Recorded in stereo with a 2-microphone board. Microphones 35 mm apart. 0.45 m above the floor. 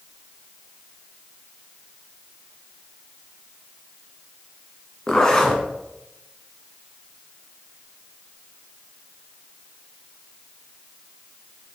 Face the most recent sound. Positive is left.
turn(degrees=15)  # may be behind; listen again after turning